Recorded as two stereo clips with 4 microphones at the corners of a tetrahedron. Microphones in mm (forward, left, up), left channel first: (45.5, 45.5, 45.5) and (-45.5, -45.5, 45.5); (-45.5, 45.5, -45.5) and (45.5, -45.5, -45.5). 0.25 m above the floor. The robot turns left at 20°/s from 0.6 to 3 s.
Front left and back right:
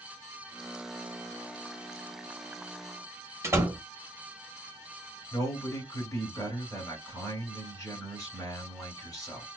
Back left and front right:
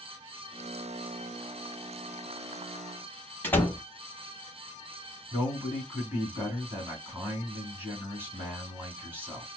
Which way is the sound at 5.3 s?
10° left.